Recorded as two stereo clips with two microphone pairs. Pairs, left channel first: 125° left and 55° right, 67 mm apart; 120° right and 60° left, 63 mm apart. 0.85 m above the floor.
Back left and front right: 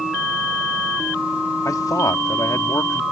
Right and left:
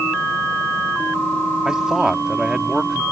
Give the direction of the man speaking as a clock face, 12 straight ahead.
7 o'clock.